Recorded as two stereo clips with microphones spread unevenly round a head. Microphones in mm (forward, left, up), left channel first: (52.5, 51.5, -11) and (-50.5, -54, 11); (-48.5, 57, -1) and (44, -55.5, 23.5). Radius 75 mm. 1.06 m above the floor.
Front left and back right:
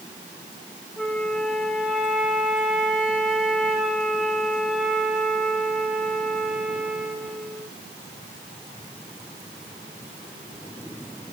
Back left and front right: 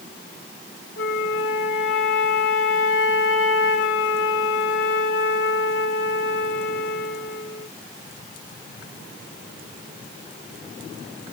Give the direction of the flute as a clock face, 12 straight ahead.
7 o'clock.